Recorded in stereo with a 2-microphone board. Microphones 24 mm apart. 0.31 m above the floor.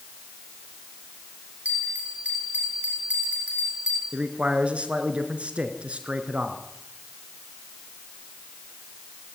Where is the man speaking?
60° right (ahead or behind), 4 m.